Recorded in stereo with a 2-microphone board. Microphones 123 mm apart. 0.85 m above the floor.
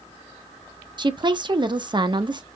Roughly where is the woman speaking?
Right.